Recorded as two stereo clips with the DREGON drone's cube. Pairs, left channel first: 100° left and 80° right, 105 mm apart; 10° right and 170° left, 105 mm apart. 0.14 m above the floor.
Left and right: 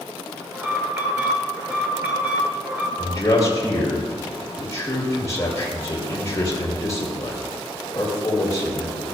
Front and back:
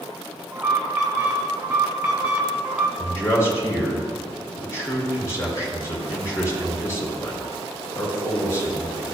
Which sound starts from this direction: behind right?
An alarm, at 0.5 s.